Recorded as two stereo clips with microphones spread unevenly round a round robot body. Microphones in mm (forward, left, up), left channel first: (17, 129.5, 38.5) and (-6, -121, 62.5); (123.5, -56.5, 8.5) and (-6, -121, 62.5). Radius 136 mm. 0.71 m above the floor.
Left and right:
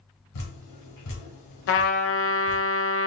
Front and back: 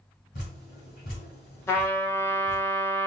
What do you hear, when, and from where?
0.3 s dripping: 80° left, 1.9 m
1.7 s a trumpet: 85° left, 1.0 m